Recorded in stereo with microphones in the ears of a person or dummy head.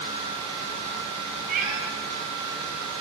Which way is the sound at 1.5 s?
45° right (ahead or behind).